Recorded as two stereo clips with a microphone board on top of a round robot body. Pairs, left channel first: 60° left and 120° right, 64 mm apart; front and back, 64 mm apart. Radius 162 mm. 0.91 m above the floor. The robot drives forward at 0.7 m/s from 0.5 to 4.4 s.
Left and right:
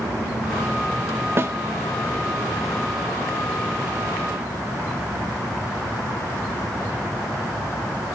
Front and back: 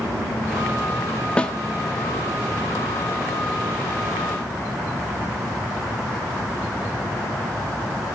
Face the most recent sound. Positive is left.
turn(degrees=-140)